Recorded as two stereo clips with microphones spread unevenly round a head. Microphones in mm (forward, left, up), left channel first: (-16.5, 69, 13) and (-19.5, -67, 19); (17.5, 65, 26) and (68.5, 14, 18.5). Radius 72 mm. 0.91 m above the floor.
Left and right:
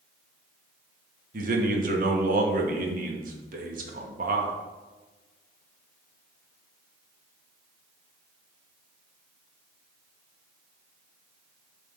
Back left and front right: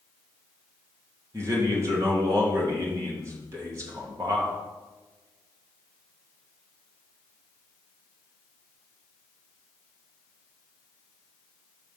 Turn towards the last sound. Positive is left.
turn(degrees=-90)